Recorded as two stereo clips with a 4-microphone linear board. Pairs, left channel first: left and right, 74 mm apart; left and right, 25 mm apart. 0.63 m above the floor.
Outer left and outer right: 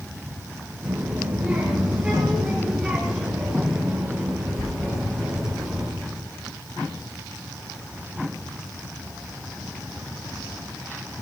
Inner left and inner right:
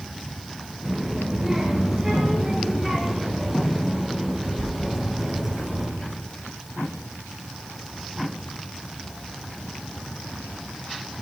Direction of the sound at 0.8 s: 20° right (ahead or behind).